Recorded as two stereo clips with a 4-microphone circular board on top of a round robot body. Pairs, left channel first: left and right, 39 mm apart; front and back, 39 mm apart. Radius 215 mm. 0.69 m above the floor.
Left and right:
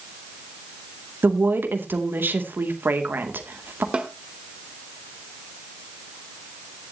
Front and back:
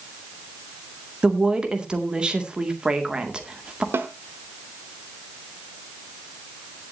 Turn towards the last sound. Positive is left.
turn(degrees=-155)